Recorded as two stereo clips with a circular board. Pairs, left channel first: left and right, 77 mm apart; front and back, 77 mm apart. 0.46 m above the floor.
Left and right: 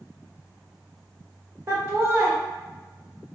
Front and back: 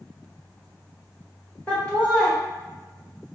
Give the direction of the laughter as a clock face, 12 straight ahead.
2 o'clock.